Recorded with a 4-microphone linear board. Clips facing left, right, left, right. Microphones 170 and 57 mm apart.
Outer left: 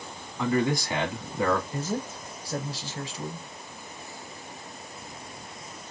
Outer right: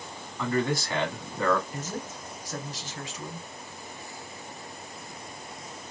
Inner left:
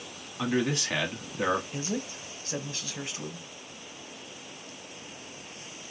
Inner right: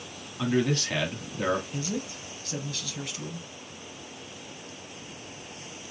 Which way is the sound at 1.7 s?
35° left (ahead or behind).